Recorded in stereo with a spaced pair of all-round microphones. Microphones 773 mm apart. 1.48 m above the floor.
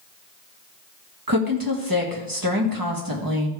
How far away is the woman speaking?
About 1.6 m.